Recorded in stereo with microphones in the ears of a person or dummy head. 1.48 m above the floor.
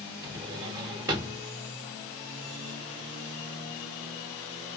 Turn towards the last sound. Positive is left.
turn(degrees=-10)  # may be behind; listen again after turning